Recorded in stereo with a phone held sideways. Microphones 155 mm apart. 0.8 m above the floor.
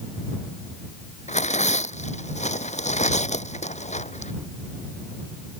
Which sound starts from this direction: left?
Tearing paper, at 1.3 s.